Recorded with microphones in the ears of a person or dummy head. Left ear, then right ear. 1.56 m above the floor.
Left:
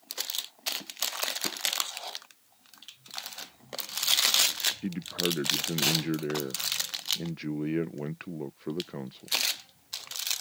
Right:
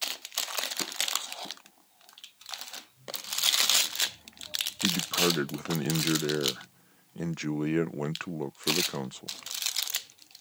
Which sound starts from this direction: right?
A man speaking, at 4.8 s.